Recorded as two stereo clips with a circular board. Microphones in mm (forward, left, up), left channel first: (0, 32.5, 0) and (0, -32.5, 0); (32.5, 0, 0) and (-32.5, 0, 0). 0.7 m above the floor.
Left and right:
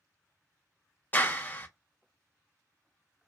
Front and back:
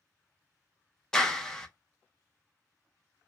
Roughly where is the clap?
Left.